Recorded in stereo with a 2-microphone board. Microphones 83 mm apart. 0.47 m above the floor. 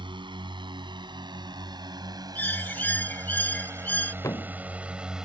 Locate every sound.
0.0 s a drone: 65° right (ahead or behind); by 5.2 s 10° right (ahead or behind)
2.4 s a bird: 20° left (ahead or behind)
4.2 s a thud: 35° left (ahead or behind)